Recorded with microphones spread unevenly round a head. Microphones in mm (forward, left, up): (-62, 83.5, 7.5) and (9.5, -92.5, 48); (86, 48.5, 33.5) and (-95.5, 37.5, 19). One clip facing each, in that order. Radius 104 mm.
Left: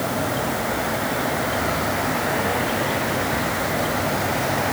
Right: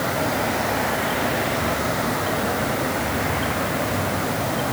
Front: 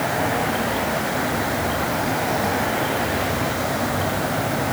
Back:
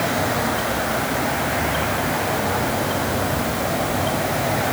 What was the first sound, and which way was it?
Only background noise.